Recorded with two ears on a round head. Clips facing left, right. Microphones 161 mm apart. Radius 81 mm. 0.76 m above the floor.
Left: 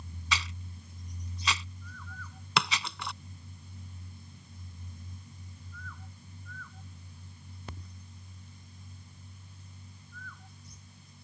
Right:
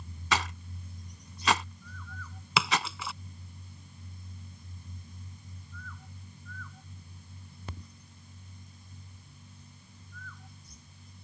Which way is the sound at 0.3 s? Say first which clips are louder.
Right 7 dB; 45° right (ahead or behind).